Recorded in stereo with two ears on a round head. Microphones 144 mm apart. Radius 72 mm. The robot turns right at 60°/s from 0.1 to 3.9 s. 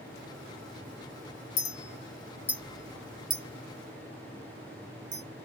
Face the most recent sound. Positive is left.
turn(degrees=-50)  # may be behind; listen again after turning